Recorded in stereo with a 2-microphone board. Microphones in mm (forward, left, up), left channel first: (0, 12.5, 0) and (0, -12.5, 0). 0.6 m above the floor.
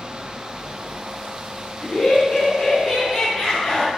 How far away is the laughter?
About 6 m.